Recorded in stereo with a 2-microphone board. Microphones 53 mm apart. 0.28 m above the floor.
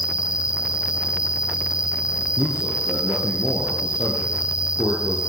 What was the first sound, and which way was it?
An insect, 70° left (ahead or behind).